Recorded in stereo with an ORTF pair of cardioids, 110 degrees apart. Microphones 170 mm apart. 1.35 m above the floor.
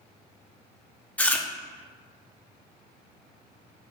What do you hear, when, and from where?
1.2 s chewing: 10° left, 0.6 m